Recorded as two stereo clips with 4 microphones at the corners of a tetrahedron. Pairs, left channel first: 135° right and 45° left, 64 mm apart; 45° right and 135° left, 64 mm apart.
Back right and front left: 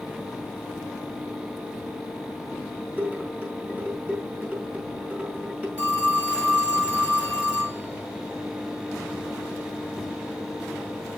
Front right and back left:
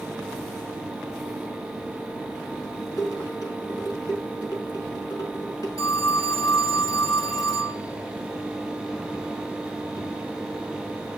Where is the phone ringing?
25° right, 3 m.